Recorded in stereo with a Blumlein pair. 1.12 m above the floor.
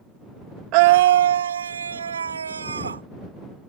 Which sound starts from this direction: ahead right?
A scream, at 0.7 s.